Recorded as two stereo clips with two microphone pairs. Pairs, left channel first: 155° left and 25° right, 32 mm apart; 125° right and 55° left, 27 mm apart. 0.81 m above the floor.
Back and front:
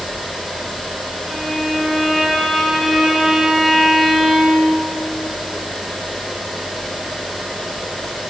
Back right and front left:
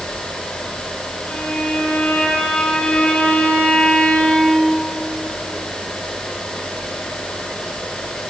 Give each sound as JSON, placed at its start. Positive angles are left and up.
{"t": 1.3, "sound": "a violin", "azimuth_deg": -115, "distance_m": 5.0}